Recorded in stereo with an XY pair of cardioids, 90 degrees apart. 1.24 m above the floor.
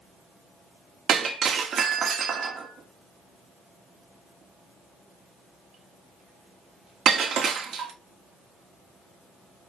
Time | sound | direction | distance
1.1 | breaking glass | 70° right | 1.5 m